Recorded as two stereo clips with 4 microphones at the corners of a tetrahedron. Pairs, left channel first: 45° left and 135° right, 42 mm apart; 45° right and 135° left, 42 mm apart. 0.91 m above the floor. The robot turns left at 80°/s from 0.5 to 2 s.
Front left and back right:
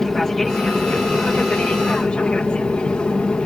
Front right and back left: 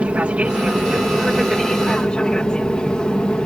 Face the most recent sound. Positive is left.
turn(degrees=5)